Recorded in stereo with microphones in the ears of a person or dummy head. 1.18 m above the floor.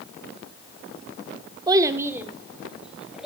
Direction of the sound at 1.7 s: 25° right (ahead or behind).